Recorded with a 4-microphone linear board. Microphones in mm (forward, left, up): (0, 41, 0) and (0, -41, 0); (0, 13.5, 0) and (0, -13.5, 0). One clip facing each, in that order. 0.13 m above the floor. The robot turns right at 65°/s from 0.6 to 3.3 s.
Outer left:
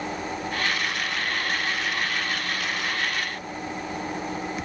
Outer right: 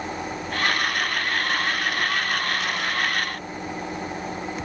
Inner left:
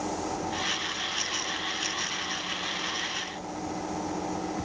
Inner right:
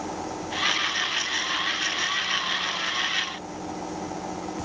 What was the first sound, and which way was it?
Only background noise.